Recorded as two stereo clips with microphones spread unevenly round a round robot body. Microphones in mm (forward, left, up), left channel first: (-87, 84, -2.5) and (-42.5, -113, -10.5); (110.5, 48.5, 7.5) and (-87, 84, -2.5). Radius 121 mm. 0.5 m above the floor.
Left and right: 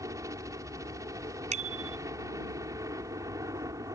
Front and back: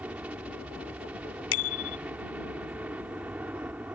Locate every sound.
0.0 s a helicopter: 120° right
1.5 s a bicycle bell: 15° right